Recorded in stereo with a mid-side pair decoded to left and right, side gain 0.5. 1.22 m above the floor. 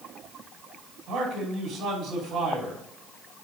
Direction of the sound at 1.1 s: 70° right.